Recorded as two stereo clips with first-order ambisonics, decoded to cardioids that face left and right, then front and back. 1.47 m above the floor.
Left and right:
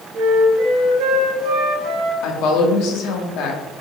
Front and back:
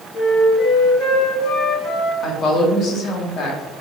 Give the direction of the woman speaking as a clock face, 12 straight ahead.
10 o'clock.